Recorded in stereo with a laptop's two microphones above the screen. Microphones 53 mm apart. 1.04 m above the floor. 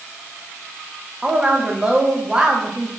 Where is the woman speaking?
15° right (ahead or behind), 0.5 m.